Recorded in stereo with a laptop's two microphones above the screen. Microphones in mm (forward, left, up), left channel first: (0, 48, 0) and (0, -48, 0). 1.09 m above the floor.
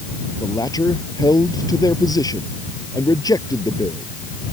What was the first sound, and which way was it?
A man speaking, 40° left (ahead or behind).